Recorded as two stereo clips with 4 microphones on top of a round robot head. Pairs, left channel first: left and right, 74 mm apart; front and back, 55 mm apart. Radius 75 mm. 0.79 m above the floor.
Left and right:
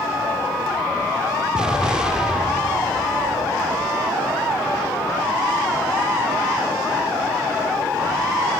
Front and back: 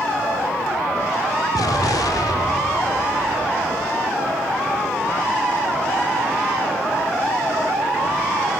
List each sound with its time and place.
1.5 s an explosion: 10° right, 0.6 m